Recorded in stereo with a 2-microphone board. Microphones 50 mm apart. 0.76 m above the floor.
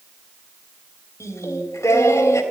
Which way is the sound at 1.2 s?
80° left.